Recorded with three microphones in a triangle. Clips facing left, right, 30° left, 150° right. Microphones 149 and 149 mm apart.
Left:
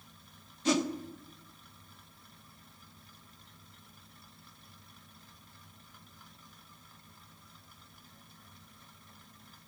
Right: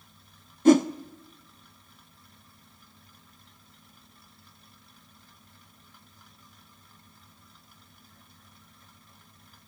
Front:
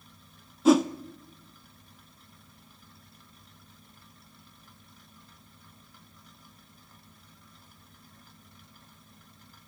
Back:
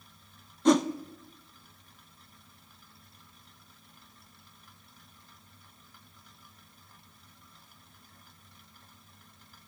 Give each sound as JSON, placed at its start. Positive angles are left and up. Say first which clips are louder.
{"t": 0.7, "sound": "a whoosh", "louder": "right 11 dB, front 2 dB", "azimuth_deg": -55, "distance_m": 0.7}